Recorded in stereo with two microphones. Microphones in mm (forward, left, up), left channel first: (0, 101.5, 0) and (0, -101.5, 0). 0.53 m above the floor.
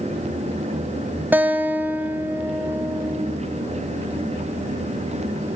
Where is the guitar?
10° right (ahead or behind), 1.3 m.